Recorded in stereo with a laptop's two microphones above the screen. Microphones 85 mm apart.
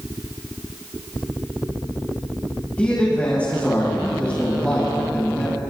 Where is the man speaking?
15° left (ahead or behind), 7 m.